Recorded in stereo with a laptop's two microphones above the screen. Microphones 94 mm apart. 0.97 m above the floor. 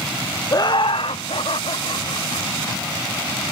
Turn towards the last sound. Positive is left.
turn(degrees=85)